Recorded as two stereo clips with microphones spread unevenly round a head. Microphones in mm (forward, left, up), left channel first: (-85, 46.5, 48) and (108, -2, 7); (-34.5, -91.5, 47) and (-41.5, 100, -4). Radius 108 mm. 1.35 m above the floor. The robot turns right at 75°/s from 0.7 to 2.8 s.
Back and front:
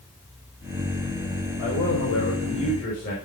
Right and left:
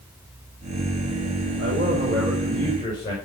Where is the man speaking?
115° left, 6 m; by 3.1 s 155° right, 6 m.